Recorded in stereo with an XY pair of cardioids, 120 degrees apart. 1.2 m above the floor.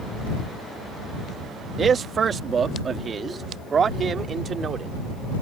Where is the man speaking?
35° right.